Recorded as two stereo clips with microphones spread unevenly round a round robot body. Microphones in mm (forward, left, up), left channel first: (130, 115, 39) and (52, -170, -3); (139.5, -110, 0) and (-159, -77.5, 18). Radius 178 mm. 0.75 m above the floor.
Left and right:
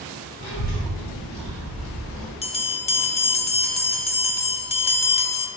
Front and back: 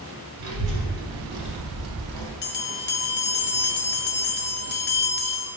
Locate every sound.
0.4 s a child speaking: 140° left, 1.9 m; by 2.3 s 175° left, 1.7 m
2.4 s a bell: 5° left, 0.6 m